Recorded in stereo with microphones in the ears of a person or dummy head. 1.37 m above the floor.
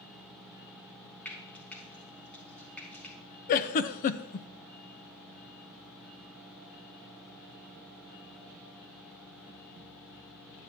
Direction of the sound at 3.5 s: 50° left (ahead or behind).